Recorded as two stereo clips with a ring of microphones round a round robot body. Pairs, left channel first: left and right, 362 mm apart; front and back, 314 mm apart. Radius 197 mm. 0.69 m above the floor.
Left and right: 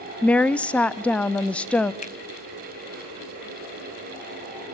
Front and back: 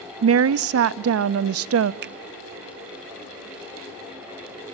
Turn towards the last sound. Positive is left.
turn(degrees=145)